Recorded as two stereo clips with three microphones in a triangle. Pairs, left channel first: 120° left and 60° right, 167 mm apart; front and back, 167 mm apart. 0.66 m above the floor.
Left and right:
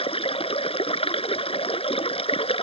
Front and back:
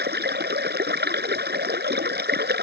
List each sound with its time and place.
0.0 s running water: 175° left